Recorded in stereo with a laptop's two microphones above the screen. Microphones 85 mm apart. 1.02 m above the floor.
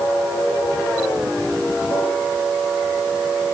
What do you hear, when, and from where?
Only background noise.